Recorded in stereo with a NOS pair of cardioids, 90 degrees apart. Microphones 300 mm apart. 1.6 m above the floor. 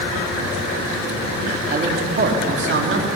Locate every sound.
1.7 s a man speaking: 30° right, 4 m; by 3.1 s 45° right, 3.5 m